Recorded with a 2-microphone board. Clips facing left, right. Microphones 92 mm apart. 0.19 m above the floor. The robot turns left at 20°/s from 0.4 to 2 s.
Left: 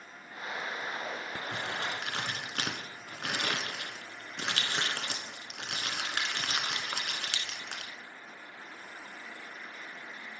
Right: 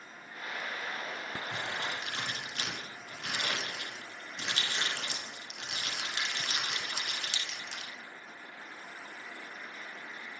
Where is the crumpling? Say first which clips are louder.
Left 2 dB; 60° left (ahead or behind), 0.9 m.